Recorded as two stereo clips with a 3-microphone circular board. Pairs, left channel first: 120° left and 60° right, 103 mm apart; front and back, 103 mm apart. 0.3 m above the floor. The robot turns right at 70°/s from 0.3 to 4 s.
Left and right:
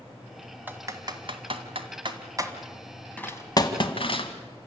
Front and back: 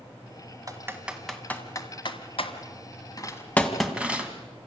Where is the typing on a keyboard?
130° right, 1.9 m; by 4.3 s 105° left, 1.9 m.